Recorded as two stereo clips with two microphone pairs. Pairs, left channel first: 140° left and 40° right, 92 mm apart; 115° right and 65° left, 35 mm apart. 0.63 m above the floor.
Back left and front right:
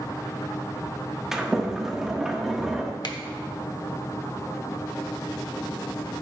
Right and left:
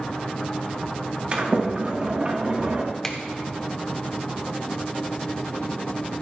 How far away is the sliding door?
About 1.1 m.